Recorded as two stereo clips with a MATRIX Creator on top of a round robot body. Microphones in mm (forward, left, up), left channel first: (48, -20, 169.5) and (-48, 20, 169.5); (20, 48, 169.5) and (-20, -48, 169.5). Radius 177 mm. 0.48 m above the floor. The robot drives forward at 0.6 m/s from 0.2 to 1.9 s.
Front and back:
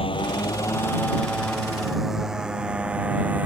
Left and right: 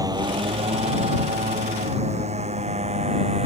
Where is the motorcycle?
55° right; by 3.5 s 125° right.